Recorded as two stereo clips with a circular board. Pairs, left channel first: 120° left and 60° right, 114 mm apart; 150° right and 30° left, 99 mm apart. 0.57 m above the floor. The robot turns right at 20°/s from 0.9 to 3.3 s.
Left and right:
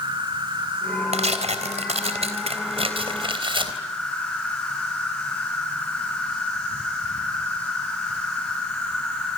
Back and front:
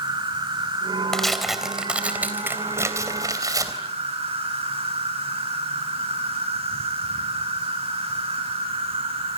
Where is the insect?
10° right, 6 m; by 9.4 s 40° left, 6 m.